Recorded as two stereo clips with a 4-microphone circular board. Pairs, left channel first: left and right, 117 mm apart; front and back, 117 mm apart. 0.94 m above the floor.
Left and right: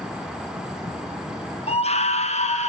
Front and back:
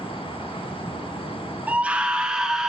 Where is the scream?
100° left, 0.7 m; by 2.7 s 95° left, 1.2 m.